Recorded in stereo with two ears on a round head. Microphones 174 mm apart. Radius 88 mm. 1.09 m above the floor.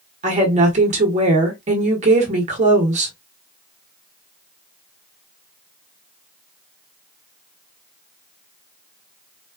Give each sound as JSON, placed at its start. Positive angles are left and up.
{"t": 0.2, "sound": "a woman speaking", "side_deg": -35, "distance_m": 1.4}